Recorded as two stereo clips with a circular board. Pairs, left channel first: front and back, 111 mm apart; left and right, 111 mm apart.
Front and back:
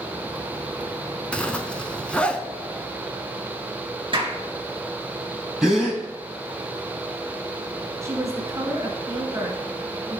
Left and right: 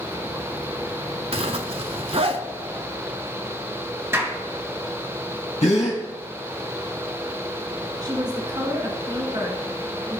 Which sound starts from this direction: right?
A zipper, at 1.3 s.